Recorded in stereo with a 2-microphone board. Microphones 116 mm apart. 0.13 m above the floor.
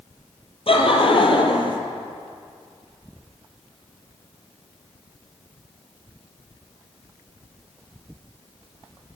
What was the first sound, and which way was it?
Laughter, 55° left (ahead or behind).